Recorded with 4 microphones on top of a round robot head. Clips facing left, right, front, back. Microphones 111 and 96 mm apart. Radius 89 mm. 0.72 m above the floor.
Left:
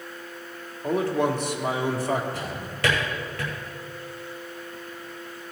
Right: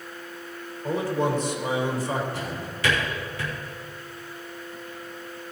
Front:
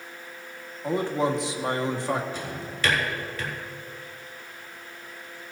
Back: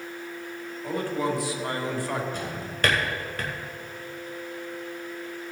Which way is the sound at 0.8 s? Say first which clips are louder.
Left 2 dB, front 3 dB; 70° left.